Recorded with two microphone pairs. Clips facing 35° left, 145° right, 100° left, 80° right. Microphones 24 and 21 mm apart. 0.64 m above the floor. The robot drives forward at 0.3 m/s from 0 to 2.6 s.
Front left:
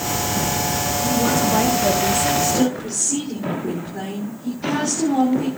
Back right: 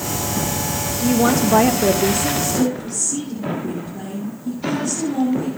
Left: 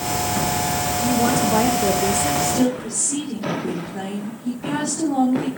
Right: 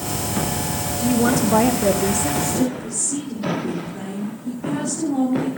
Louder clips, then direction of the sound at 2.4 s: Front left 1 dB, left 2 dB; 95° left.